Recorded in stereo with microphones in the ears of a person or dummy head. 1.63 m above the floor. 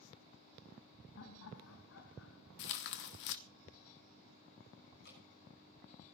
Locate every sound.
1.2 s laughter: 70° left (ahead or behind), 3 m; by 2.5 s 80° left, 4.5 m
2.6 s tearing paper: 60° left (ahead or behind), 1.1 m
5.0 s dripping: 65° left (ahead or behind), 7 m